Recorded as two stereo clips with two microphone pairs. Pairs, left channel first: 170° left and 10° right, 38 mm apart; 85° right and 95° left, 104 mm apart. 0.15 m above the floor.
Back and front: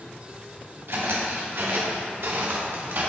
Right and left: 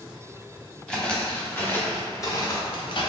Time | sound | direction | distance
0.9 | footsteps | straight ahead | 1.5 m